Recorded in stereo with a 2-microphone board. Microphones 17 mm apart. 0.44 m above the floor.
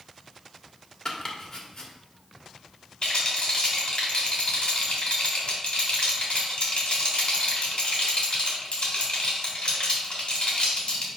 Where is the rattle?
65° left (ahead or behind), 3 m.